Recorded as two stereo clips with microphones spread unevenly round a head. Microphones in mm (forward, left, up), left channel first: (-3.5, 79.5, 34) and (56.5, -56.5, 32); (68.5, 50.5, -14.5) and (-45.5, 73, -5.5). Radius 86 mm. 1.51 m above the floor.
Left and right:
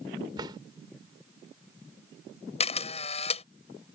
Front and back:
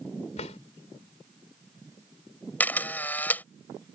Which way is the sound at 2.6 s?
65° left.